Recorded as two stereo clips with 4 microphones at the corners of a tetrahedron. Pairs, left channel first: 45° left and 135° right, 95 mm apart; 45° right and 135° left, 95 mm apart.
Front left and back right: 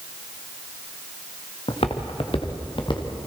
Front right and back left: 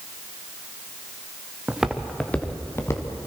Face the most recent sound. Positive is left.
turn(degrees=10)